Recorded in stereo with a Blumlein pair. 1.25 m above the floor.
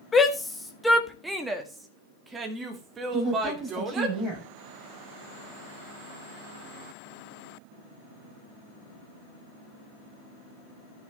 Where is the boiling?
No boiling in this recording.